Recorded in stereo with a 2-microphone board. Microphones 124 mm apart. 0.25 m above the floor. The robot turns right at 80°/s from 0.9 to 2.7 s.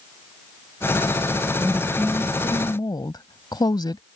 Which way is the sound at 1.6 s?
15° right.